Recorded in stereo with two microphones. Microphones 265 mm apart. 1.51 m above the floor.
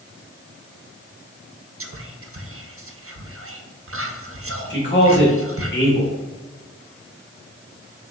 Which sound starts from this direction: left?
A man speaking, at 4.7 s.